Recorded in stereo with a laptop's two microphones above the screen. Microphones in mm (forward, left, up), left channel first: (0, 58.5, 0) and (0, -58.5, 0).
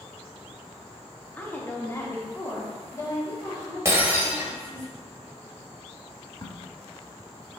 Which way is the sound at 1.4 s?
15° left (ahead or behind).